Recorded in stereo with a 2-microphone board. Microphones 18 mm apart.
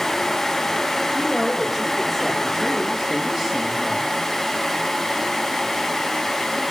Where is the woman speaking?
20° right (ahead or behind), 7 m; by 4.1 s 30° right (ahead or behind), 5.5 m.